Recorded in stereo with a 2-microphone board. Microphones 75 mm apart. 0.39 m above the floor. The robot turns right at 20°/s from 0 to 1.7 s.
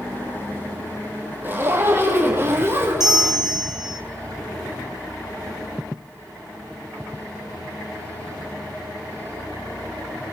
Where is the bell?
10° right (ahead or behind), 2.5 m.